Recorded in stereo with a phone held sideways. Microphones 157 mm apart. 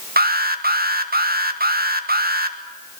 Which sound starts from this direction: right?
An alarm, at 0.2 s.